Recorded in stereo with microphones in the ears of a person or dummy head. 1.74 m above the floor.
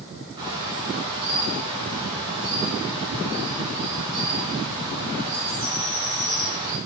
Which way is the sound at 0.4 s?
20° right (ahead or behind).